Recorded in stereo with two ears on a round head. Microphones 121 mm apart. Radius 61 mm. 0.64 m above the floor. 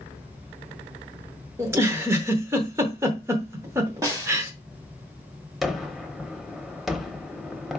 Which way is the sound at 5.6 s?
Centre (ahead or behind).